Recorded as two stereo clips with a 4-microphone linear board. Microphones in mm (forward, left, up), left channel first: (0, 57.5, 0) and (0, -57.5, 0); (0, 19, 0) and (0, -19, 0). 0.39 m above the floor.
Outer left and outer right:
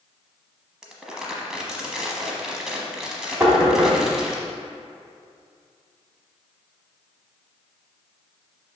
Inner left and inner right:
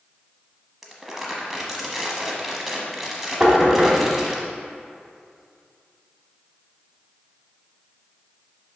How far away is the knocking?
About 1.5 m.